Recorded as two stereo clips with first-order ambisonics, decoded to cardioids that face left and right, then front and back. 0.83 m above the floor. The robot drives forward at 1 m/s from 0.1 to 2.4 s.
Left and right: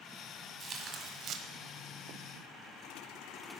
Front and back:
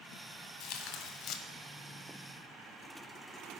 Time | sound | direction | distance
0.6 | tearing paper | 25° right | 1.7 m